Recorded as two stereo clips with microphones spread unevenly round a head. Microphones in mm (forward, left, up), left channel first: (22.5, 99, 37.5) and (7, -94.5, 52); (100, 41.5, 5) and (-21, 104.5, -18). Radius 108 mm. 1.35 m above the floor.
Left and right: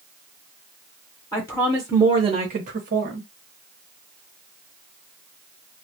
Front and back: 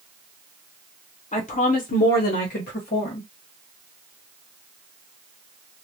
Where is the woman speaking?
15° left, 0.9 m; by 3.3 s 70° right, 1.0 m.